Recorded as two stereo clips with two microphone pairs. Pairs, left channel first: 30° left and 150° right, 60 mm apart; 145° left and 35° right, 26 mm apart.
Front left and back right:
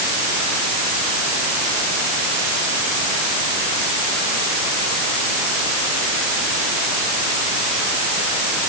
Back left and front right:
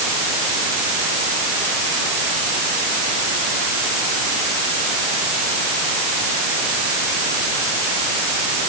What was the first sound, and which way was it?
Only background noise.